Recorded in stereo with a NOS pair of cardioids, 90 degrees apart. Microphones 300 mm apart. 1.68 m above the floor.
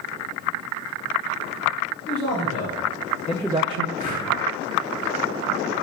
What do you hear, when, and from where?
2.1 s a man speaking: 60° left, 2 m; by 3.9 s 60° right, 0.6 m
4.0 s breathing: 70° left, 1.4 m